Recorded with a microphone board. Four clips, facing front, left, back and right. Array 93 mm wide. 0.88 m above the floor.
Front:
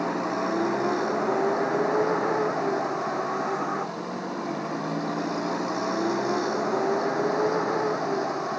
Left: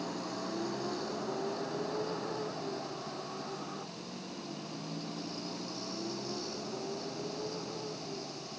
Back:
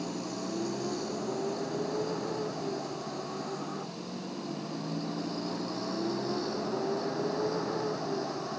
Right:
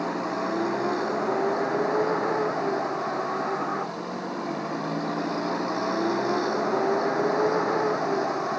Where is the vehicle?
35° right; by 8.6 s 60° right.